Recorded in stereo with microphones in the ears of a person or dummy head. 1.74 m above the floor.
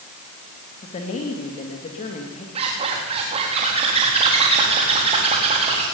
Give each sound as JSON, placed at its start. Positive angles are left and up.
{"t": 0.8, "sound": "a woman speaking", "side_deg": 30, "distance_m": 3.0}
{"t": 2.5, "sound": "a zipper", "side_deg": -30, "distance_m": 4.0}